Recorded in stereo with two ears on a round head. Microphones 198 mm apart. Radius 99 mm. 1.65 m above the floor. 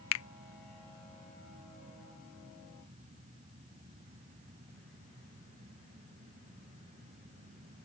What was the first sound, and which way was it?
A finger snap, 70° left (ahead or behind).